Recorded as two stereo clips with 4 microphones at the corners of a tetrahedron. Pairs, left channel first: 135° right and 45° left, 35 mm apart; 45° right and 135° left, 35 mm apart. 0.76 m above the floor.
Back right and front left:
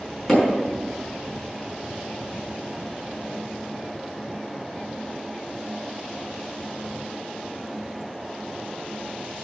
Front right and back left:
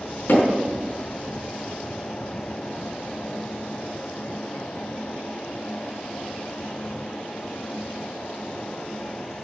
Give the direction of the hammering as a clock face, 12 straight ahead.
2 o'clock.